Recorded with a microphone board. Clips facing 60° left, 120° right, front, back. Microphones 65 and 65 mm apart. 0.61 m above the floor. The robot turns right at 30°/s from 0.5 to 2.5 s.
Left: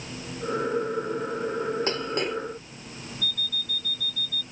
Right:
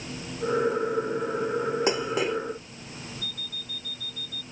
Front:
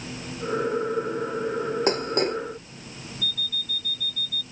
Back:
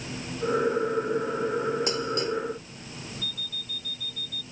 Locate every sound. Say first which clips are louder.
1.9 s dishes clattering: right 2 dB, front 4 dB; 45° right; by 2.4 s 30° right
3.2 s an alarm clock: left 6 dB, front 5 dB; 30° left